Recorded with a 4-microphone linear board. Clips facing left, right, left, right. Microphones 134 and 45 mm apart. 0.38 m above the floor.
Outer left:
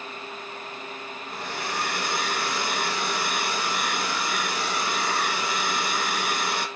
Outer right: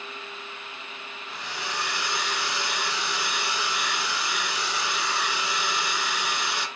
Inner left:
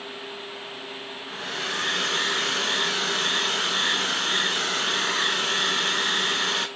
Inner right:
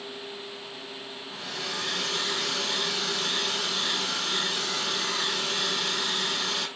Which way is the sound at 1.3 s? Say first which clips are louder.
Outer left 3 dB, inner left 5 dB; 55° left (ahead or behind).